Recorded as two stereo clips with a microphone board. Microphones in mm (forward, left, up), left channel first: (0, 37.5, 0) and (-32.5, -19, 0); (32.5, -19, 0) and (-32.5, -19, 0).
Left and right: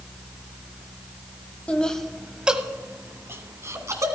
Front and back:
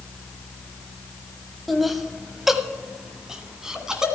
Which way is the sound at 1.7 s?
90° left.